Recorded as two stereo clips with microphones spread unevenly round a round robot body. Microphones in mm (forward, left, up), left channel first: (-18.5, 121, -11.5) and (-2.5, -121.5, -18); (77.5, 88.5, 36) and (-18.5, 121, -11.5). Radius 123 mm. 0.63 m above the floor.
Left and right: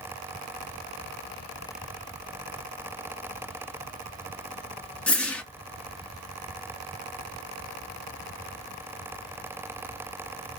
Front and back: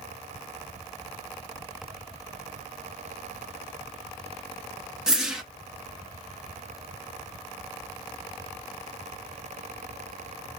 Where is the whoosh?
Straight behind, 0.6 m.